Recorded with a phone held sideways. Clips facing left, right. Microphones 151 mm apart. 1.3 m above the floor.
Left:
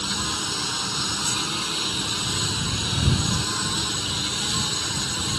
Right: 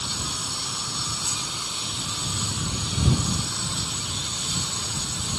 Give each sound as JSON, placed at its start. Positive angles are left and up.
{"t": 0.0, "sound": "a lawn mower", "side_deg": 80}